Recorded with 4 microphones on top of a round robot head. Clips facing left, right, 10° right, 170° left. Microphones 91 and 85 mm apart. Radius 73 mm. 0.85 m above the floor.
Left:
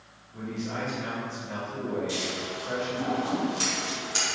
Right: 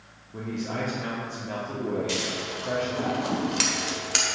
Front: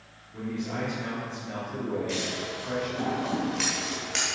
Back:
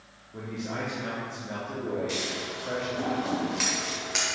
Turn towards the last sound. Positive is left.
turn(degrees=-105)